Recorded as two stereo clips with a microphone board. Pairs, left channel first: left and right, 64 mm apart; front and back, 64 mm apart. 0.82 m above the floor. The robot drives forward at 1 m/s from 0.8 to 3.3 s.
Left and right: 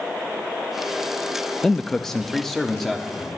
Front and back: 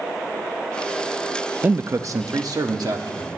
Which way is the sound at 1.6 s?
155° left.